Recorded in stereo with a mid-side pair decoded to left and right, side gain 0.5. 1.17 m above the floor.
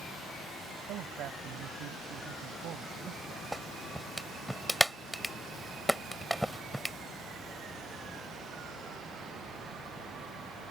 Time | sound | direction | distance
0.9 | a man speaking | 65° right | ?
3.5 | a clap | straight ahead | ?